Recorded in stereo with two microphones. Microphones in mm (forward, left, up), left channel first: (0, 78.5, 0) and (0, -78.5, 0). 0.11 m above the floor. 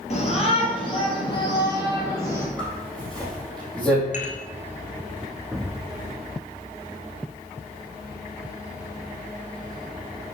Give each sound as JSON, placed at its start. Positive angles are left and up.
{"t": 0.1, "sound": "a shout", "side_deg": 45, "distance_m": 3.5}
{"t": 2.6, "sound": "a zipper", "side_deg": 5, "distance_m": 4.5}
{"t": 4.1, "sound": "dishes clattering", "side_deg": 50, "distance_m": 1.5}
{"t": 5.5, "sound": "an explosion", "side_deg": -5, "distance_m": 0.7}